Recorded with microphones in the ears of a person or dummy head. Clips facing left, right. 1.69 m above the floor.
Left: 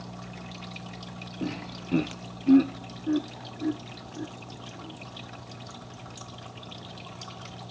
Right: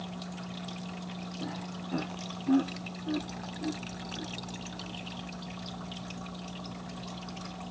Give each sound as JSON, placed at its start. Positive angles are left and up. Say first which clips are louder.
{"t": 1.4, "sound": "laughter", "louder": "left 8 dB", "side_deg": 40}